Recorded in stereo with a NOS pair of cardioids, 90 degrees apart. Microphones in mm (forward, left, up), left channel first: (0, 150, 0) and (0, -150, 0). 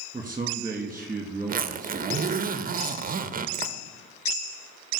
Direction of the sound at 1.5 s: 30° right.